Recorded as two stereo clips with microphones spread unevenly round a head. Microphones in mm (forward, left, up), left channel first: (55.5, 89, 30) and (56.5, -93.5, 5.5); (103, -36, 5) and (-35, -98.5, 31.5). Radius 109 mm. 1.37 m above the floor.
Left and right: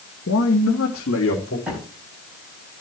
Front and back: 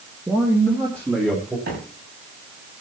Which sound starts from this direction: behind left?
A man speaking, at 0.3 s.